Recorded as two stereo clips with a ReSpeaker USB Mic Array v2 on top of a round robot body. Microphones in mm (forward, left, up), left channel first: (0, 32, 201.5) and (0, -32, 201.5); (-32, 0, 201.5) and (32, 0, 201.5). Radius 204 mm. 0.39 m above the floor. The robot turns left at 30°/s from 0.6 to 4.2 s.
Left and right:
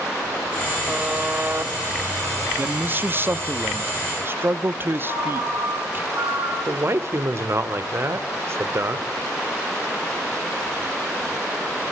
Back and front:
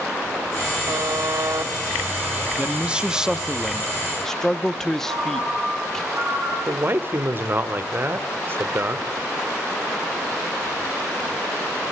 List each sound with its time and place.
0.9 s a buzzer: 15° right, 0.9 m; by 1.7 s 40° right, 0.9 m
2.6 s a man speaking: 55° right, 1.0 m; by 6.0 s 105° right, 1.0 m
5.0 s a ringtone: 50° right, 6 m
6.7 s a man speaking: 50° right, 1.7 m